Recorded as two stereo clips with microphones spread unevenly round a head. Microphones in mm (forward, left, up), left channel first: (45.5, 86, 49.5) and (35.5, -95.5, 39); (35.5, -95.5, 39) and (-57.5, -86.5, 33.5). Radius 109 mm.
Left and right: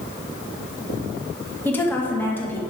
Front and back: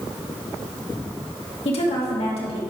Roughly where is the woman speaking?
Ahead.